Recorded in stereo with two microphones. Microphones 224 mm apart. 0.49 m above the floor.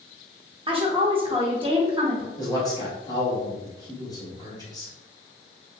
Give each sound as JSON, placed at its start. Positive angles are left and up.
{"t": 0.7, "sound": "a woman speaking", "side_deg": -25, "distance_m": 0.8}
{"t": 2.4, "sound": "a man speaking", "side_deg": 15, "distance_m": 1.2}